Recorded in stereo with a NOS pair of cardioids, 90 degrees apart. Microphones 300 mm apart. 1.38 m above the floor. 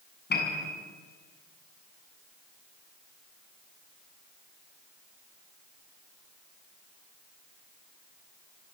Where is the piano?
35° left, 7 m.